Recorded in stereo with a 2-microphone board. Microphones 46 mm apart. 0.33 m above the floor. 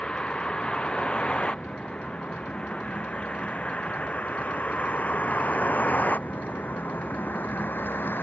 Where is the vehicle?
20° left (ahead or behind); by 8.2 s 45° left (ahead or behind).